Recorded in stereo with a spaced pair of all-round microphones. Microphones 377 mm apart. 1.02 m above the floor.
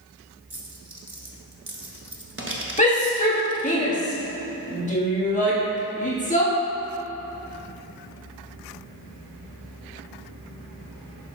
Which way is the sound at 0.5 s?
35° right (ahead or behind).